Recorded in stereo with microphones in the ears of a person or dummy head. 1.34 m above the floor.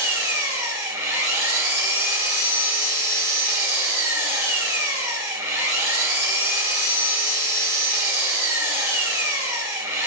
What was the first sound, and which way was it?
An engine running, 20° right (ahead or behind).